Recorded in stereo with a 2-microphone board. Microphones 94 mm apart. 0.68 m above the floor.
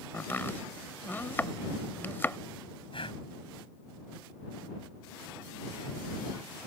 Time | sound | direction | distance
0.1 | chopping | 20° left (ahead or behind) | ?
2.9 | breathing | 65° left (ahead or behind) | ?